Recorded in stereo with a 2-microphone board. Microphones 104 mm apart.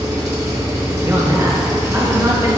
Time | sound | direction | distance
0.0 | an engine running | 35° right (ahead or behind) | 0.7 m
1.0 | a man speaking | 25° right (ahead or behind) | 0.7 m